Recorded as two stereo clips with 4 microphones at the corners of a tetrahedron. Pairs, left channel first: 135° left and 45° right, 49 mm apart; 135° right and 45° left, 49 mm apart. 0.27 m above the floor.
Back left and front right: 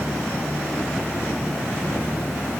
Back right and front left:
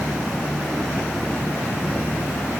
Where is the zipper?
I don't hear a zipper.